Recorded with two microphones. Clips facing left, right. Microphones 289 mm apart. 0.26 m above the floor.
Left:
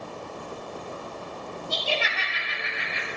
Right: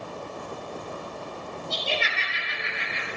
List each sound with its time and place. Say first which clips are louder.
1.7 s laughter: left 1 dB; 25° right (ahead or behind), 4 m; by 3.1 s 35° right (ahead or behind), 4 m